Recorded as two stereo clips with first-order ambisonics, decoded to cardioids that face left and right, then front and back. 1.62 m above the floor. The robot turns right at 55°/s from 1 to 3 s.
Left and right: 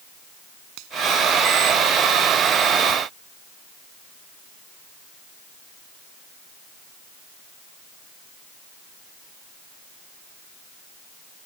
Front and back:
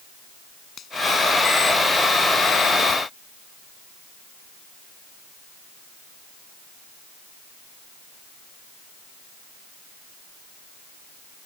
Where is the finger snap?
65° right.